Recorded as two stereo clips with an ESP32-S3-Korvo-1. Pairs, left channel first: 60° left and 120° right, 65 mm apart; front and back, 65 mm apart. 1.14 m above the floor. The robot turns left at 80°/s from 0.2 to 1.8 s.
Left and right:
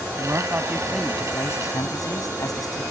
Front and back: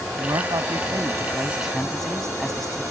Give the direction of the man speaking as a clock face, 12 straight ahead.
5 o'clock.